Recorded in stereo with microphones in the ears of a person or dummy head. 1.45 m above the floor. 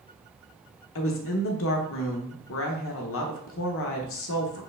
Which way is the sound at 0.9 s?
60° left (ahead or behind).